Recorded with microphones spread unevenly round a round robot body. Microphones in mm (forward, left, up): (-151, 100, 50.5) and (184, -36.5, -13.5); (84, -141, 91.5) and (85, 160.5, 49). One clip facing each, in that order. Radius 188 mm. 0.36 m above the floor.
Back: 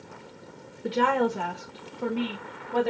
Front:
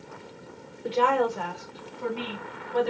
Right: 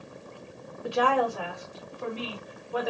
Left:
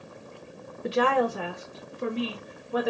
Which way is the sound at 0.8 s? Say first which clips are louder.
Even, left 2 dB; 85° left.